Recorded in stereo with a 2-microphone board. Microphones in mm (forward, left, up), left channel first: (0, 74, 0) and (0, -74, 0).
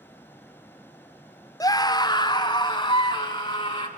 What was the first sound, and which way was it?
A scream, 25° left (ahead or behind).